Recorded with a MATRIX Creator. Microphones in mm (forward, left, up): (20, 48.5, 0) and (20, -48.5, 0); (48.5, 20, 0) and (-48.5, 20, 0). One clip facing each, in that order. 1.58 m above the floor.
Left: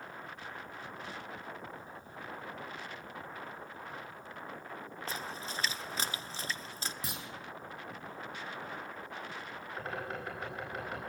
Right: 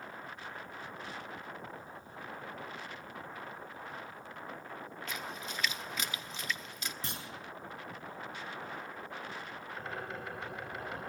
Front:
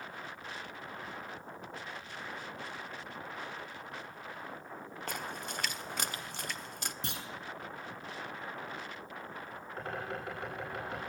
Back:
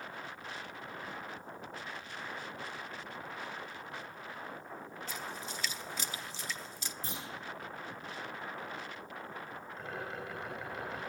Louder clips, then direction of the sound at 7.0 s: Even, back 2 dB; 10° left.